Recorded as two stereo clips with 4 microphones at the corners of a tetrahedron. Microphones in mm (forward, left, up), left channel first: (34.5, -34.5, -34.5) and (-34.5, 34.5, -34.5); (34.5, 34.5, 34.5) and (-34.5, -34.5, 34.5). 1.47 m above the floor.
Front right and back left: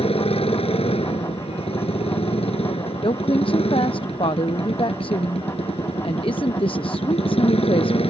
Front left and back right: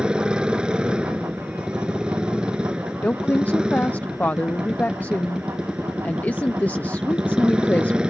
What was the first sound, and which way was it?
A motorcycle, 55° right.